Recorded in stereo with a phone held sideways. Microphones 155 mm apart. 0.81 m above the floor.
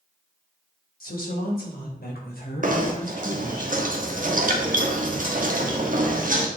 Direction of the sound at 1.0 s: 70° left (ahead or behind).